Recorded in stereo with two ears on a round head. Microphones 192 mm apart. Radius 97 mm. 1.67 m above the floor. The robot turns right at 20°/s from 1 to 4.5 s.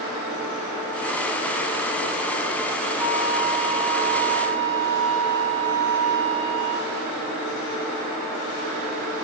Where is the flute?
10° right, 2.5 m; by 7.0 s 20° left, 2.5 m.